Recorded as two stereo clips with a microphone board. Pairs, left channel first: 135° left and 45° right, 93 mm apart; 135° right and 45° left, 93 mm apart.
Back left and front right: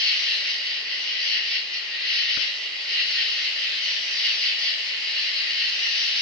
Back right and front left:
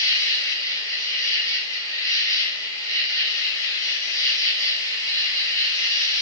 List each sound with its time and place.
0.0 s an insect: 140° right, 1.1 m